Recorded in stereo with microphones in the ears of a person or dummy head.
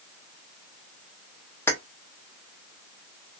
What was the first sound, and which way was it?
Keys jangling, 10° left (ahead or behind).